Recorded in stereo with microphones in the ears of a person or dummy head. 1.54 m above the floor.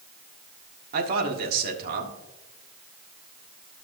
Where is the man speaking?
55° right (ahead or behind), 1.4 m.